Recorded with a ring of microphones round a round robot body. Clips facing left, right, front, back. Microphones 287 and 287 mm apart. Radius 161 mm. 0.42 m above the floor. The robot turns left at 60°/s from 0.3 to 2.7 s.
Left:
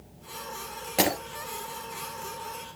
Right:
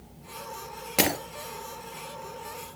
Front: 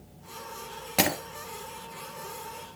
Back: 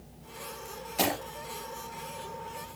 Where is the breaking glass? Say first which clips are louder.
Even, front 2 dB; 10° right, 3.5 m; by 1.2 s 25° right, 3.5 m.